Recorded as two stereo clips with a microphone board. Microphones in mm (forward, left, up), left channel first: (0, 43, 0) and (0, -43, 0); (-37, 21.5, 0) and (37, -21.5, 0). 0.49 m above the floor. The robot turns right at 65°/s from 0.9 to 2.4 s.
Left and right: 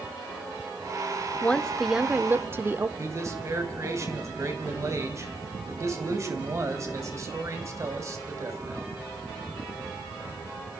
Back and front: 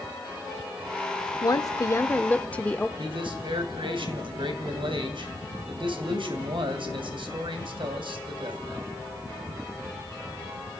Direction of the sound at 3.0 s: 35° right.